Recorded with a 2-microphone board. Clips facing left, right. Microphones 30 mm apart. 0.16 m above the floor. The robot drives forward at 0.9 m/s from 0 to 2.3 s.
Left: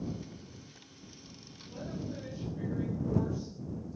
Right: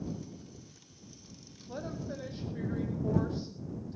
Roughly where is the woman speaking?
Right.